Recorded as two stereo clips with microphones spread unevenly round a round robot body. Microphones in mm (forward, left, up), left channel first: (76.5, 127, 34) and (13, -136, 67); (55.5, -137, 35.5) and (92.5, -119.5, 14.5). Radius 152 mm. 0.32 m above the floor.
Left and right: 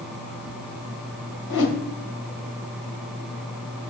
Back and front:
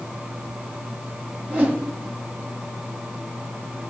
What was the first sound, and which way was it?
A whoosh, 100° left.